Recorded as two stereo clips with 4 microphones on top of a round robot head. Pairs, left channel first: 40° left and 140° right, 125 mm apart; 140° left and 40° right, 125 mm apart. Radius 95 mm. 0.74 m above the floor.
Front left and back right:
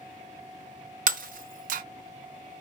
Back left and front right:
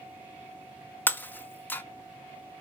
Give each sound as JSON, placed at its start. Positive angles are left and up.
{"t": 1.1, "sound": "breaking glass", "azimuth_deg": -145, "distance_m": 0.6}